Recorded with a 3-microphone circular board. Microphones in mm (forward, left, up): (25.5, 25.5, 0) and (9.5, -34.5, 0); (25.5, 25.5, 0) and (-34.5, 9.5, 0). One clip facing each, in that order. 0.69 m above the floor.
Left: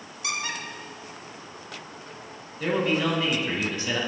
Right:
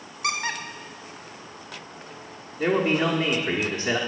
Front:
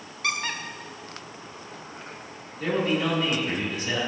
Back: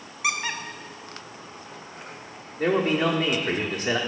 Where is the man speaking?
125° right, 1.3 m.